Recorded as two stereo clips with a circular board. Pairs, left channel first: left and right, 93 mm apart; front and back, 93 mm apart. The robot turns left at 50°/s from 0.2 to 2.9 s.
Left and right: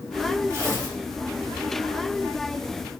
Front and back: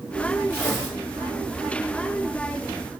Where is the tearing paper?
60° right, 1.7 m; by 1.0 s 85° right, 1.7 m.